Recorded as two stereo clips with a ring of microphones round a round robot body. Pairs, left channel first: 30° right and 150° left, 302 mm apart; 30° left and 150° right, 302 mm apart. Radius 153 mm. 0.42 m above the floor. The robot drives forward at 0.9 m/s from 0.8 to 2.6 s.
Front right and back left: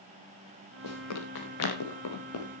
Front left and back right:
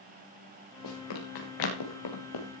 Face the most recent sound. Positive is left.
turn(degrees=15)